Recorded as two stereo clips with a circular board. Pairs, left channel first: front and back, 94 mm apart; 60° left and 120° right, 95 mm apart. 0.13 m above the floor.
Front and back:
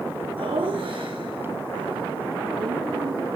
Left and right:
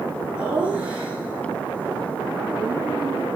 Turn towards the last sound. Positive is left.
turn(degrees=175)